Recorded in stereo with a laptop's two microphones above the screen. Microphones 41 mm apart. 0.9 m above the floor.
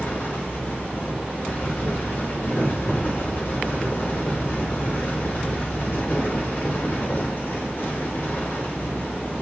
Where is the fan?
65° left (ahead or behind), 1.3 m.